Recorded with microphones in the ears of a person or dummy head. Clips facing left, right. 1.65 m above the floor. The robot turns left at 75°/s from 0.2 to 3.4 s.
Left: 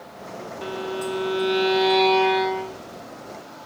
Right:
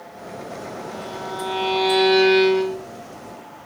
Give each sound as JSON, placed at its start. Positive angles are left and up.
{"t": 0.6, "sound": "a violin", "azimuth_deg": 100}